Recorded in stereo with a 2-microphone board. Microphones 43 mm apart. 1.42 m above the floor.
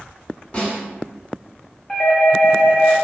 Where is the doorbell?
25° left (ahead or behind), 0.7 m.